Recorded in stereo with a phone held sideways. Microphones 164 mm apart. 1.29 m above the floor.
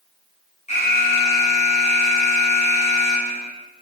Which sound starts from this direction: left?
An alarm, at 0.7 s.